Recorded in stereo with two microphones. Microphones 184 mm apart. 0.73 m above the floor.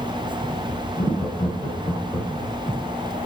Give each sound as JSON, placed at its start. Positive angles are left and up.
{"t": 1.0, "sound": "laughter", "side_deg": 10, "distance_m": 4.5}